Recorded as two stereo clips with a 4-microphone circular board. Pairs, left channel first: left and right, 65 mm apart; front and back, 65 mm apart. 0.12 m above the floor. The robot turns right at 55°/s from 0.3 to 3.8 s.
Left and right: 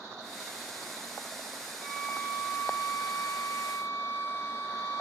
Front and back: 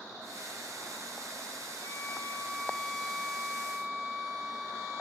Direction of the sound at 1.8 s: 25° left.